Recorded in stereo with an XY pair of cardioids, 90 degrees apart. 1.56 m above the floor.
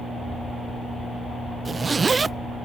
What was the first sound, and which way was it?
A zipper, 35° right.